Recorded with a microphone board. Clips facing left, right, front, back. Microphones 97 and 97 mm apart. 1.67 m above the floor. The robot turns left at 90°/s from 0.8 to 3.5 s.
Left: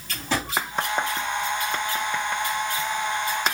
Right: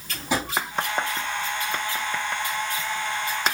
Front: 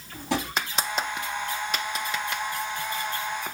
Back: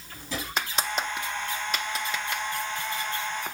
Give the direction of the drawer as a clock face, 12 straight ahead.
12 o'clock.